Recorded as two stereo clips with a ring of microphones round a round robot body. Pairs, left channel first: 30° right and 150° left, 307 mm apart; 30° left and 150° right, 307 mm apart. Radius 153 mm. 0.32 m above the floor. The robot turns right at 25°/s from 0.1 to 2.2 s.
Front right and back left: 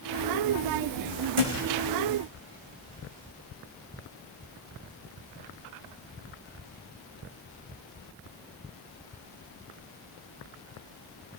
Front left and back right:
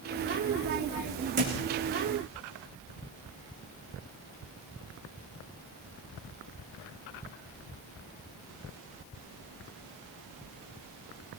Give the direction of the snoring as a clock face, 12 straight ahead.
I don't hear snoring.